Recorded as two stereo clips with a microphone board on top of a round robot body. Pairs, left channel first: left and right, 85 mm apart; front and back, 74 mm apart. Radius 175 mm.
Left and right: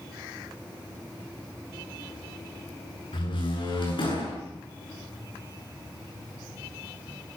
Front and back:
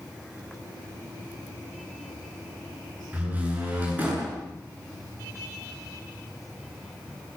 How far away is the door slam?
About 9.5 m.